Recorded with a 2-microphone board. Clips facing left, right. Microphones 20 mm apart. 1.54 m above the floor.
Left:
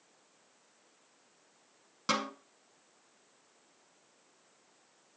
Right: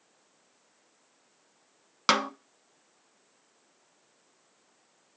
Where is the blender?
No blender in this recording.